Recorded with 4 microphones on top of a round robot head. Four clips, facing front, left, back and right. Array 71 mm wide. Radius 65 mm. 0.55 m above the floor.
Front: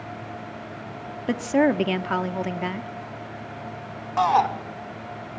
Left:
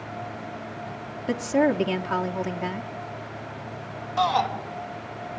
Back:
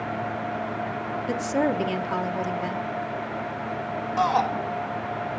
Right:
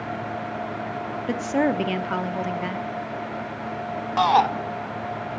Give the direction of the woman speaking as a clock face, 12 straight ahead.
1 o'clock.